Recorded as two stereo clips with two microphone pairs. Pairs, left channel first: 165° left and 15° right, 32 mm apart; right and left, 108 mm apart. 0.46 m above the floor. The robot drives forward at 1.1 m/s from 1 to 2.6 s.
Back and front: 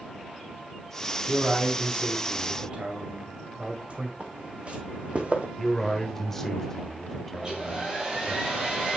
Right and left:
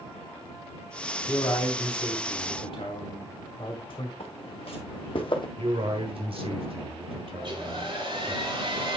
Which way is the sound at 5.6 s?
90° left.